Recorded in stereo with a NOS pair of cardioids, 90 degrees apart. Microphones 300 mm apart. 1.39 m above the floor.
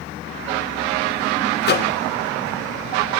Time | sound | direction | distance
1.6 | a microwave | 35° left | 0.6 m